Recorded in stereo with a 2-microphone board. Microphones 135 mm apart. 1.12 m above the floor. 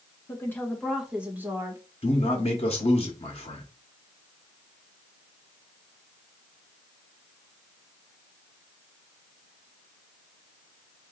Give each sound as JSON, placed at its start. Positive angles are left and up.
{"t": 0.3, "sound": "a woman speaking", "side_deg": 20, "distance_m": 1.0}
{"t": 2.0, "sound": "a man speaking", "side_deg": 50, "distance_m": 1.0}